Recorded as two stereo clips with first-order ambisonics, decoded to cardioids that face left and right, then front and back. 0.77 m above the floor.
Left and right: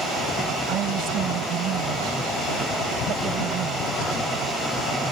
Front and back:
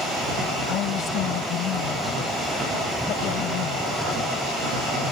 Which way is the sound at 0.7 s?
45° right.